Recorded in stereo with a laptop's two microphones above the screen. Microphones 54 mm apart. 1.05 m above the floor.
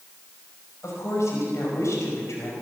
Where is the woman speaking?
65° left (ahead or behind), 5 m.